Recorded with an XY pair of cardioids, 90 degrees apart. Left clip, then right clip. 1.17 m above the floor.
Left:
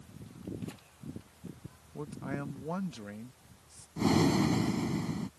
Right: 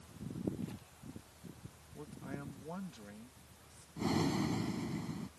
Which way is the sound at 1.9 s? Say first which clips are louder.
Left 8 dB; 65° left.